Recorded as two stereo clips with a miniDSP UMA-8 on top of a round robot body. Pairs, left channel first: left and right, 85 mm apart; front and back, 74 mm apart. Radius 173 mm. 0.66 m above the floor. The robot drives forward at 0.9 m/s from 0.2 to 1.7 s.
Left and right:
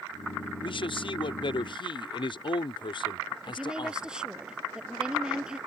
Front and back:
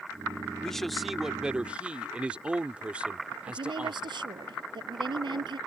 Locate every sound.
0.6 s a man speaking: 80° left; by 4.1 s 105° left
3.5 s a woman speaking: 170° right